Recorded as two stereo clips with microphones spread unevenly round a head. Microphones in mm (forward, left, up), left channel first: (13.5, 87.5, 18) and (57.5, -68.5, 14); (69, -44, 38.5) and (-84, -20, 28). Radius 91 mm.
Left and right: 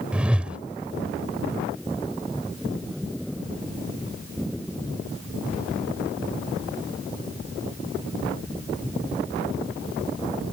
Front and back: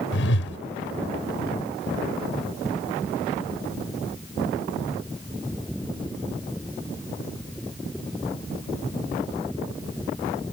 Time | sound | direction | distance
0.1 | a whoosh | 10° left | ?